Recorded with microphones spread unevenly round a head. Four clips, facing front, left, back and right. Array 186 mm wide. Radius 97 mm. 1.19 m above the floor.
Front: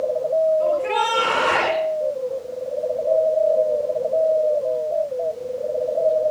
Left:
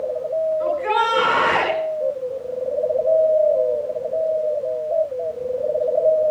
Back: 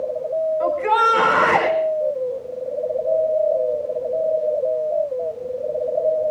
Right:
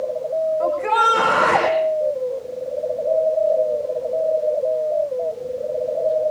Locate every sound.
0.6 s a shout: 140° right, 7 m